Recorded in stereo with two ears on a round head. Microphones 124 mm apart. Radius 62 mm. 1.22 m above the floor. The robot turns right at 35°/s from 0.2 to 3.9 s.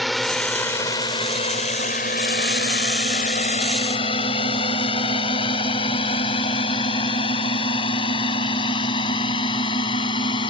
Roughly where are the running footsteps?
I don't hear running footsteps.